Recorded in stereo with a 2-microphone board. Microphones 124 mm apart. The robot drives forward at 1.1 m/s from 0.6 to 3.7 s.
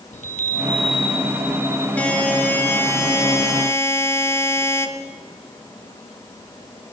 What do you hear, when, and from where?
0.1 s a chime: 70° left (ahead or behind), 0.7 m; by 1.9 s 25° left (ahead or behind), 1.8 m
2.0 s a buzzer: 10° left (ahead or behind), 1.7 m; by 4.9 s 20° left (ahead or behind), 1.0 m